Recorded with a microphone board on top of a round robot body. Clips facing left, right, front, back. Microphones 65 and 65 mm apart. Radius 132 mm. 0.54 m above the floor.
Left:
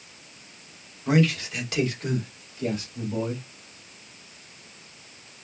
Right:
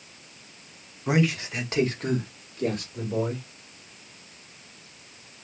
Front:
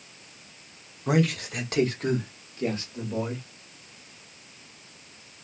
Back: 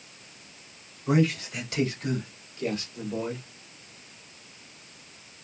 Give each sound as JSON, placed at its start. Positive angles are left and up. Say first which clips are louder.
{"t": 1.1, "sound": "a man speaking", "louder": "left 2 dB, even", "azimuth_deg": -15, "distance_m": 1.6}